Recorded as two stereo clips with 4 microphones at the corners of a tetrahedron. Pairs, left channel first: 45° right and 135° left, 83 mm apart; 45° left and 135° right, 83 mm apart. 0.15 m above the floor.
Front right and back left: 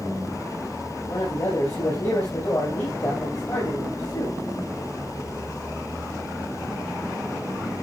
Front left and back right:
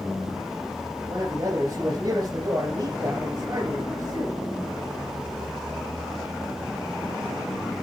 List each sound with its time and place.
1.1 s a man speaking: 85° right, 3.5 m